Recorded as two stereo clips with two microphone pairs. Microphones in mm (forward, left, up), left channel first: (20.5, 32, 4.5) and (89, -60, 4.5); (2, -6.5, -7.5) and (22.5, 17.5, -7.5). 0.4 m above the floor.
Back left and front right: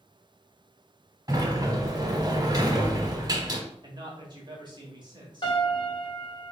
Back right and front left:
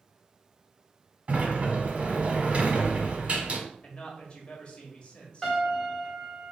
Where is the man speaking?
85° right, 1.3 m.